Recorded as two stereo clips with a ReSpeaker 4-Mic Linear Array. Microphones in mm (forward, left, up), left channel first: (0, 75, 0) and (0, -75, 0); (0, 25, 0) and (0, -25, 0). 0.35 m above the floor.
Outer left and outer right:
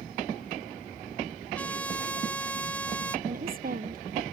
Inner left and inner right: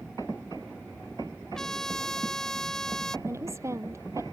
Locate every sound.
1.5 s a trumpet: 10° left (ahead or behind)
3.3 s a woman speaking: 75° right (ahead or behind)